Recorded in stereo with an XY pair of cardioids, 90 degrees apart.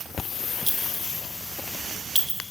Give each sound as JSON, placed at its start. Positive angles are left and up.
{"t": 0.7, "sound": "a clink", "azimuth_deg": 0, "distance_m": 2.5}